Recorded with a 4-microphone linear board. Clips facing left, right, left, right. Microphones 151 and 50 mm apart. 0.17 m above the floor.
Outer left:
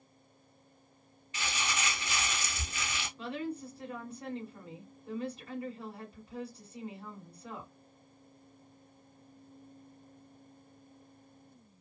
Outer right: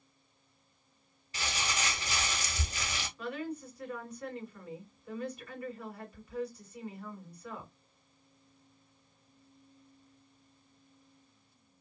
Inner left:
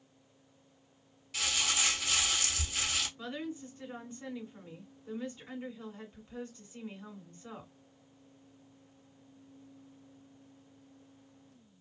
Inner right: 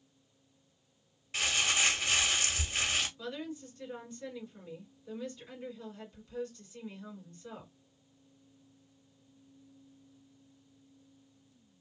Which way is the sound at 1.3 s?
40° right (ahead or behind).